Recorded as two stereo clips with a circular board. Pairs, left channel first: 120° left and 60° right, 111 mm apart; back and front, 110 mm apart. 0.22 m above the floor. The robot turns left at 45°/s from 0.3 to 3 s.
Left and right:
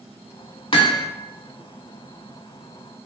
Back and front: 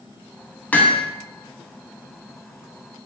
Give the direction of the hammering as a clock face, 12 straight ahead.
8 o'clock.